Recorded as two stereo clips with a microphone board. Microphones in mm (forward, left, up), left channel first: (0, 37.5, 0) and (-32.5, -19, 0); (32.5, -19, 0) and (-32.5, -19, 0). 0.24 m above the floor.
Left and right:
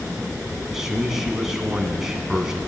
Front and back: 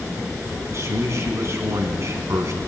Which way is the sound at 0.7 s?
160° left.